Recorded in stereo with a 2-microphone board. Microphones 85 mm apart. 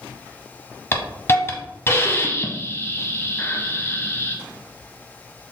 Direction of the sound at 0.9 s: 30° left (ahead or behind).